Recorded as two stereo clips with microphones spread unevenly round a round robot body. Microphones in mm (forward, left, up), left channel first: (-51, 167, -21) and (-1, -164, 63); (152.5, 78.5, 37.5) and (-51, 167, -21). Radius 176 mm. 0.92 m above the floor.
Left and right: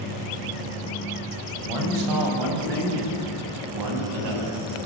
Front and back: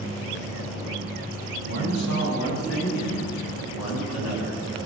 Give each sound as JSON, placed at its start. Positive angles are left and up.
{"t": 1.6, "sound": "a man speaking", "azimuth_deg": -70, "distance_m": 7.0}